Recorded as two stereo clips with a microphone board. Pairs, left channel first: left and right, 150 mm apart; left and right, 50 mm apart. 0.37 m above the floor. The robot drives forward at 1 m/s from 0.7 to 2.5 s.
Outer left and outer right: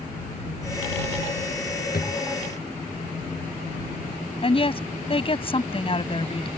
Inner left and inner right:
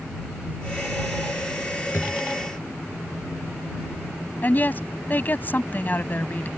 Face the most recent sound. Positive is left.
turn(degrees=40)  # may be behind; listen again after turning